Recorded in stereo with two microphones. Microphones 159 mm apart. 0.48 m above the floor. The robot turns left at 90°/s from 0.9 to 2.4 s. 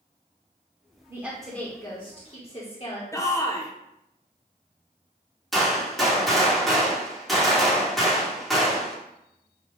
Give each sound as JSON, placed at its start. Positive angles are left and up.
{"t": 1.1, "sound": "a woman speaking", "azimuth_deg": -155, "distance_m": 1.1}
{"t": 3.1, "sound": "a shout", "side_deg": 20, "distance_m": 0.7}
{"t": 5.5, "sound": "a gunshot", "side_deg": 0, "distance_m": 1.4}